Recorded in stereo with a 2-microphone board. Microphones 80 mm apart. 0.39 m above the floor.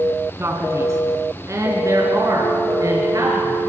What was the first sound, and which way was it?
A man speaking, 30° right (ahead or behind).